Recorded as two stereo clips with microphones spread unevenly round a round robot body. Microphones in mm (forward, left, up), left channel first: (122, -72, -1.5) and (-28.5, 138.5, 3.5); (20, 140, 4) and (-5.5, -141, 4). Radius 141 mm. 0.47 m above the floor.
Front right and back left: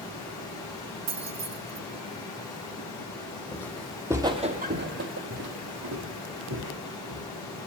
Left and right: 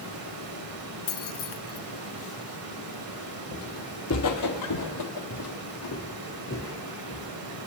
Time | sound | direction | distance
0.0 | running water | 135° right | 1.8 m
1.1 | keys jangling | 85° left | 0.6 m
3.5 | footsteps | 25° left | 1.1 m